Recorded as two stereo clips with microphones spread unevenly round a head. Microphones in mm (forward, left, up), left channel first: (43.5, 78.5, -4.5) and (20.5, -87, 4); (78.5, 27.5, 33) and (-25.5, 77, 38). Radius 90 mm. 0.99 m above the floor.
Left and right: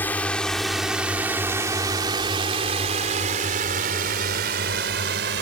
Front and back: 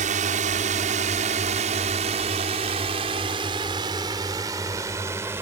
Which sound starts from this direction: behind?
A drone, at 0.0 s.